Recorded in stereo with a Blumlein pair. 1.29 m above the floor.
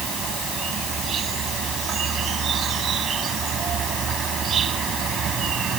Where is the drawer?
I don't hear a drawer.